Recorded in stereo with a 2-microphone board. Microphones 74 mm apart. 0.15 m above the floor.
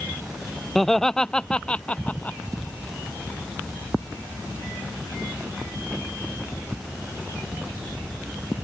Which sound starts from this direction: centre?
Laughter, at 0.8 s.